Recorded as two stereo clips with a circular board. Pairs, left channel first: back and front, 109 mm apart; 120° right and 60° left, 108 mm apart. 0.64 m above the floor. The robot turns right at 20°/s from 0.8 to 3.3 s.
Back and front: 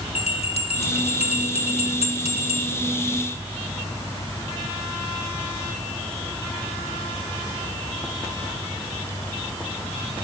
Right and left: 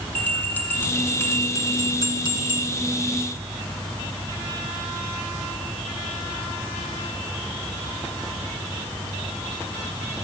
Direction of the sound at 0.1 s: 165° left.